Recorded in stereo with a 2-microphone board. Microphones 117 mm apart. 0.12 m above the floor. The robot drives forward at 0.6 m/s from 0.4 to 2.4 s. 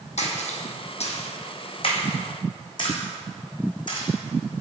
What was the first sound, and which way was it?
A splash, 80° left.